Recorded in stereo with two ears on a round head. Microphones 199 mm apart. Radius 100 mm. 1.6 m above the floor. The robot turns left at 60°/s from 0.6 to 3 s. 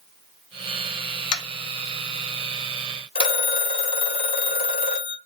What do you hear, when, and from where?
1.3 s tapping: 80° left, 1.0 m; by 3.3 s 25° right (ahead or behind), 1.0 m
3.1 s a phone ringing: 25° left (ahead or behind), 1.0 m